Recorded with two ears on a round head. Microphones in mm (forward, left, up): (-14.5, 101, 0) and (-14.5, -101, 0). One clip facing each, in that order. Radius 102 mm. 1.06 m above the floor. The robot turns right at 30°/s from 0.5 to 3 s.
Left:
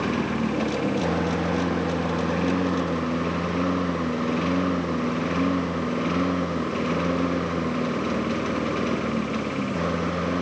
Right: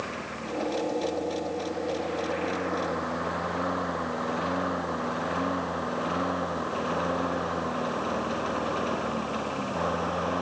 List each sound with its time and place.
0.0 s a lawn mower: 60° left (ahead or behind); by 10.4 s 30° left (ahead or behind)